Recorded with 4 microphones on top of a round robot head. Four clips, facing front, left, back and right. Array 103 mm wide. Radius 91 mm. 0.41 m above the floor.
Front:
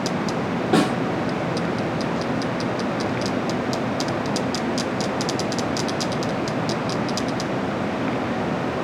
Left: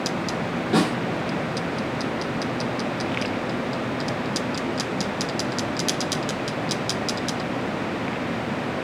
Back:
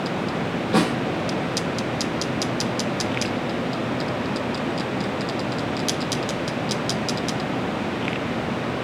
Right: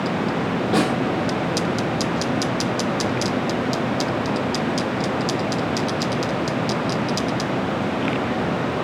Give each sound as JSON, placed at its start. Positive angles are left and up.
{"t": 0.7, "sound": "a snare drum", "azimuth_deg": 5, "distance_m": 8.0}